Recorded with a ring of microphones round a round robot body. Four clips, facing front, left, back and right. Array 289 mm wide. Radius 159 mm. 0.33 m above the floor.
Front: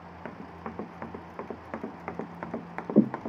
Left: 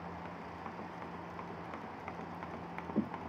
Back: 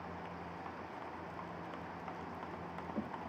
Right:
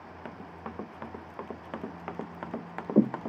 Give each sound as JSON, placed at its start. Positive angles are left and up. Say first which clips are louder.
{"t": 0.2, "sound": "running footsteps", "louder": "right 3 dB, front 5 dB", "azimuth_deg": -30}